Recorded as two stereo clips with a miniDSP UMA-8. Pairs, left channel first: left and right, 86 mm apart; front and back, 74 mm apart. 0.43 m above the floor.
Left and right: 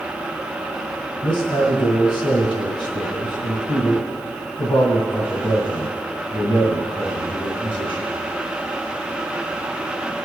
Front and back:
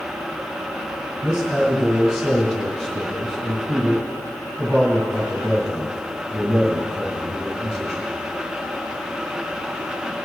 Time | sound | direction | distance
1.2 | a man speaking | 80° left | 3.5 m